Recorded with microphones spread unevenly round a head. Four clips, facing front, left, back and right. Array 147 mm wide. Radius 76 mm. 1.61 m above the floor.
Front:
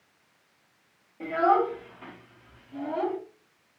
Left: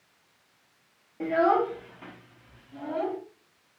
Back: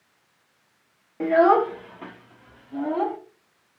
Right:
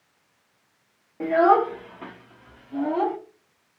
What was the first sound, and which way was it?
A child speaking, 165° right.